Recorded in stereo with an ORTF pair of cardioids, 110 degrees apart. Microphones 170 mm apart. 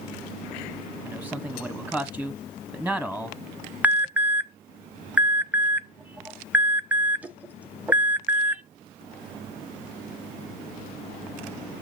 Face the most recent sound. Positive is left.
turn(degrees=-10)